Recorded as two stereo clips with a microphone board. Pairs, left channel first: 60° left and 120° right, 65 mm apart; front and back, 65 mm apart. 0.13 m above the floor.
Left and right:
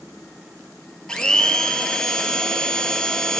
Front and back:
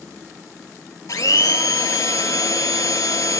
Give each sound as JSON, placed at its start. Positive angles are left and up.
{"t": 1.1, "sound": "a blender", "azimuth_deg": -15, "distance_m": 0.6}